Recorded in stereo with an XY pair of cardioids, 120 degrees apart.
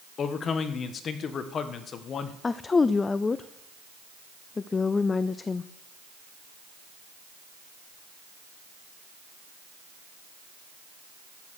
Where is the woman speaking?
25° left, 0.5 m.